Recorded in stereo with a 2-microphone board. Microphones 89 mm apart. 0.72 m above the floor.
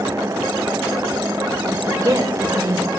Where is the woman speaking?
35° right (ahead or behind), 2.5 m.